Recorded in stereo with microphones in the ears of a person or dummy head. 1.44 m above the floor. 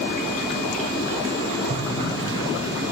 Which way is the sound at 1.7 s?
50° right (ahead or behind).